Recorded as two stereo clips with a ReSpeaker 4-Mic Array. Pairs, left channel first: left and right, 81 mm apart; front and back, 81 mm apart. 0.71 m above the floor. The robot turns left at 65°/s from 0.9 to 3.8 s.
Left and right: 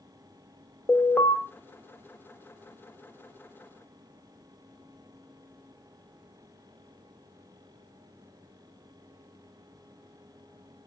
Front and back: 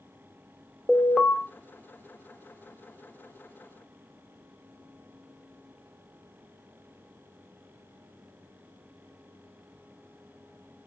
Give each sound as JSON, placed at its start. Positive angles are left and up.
{"t": 0.9, "sound": "an alarm", "azimuth_deg": 85, "distance_m": 1.1}